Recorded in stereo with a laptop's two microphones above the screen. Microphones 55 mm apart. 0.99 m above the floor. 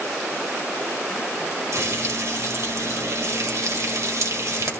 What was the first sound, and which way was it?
Frying, 60° right (ahead or behind).